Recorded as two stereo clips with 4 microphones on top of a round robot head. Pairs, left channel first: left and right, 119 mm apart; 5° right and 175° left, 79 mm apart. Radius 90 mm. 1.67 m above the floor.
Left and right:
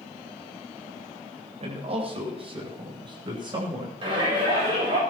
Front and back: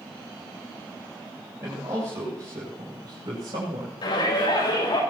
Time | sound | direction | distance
1.6 | a man speaking | 120° right | 7.5 m
4.0 | a shout | 40° right | 7.5 m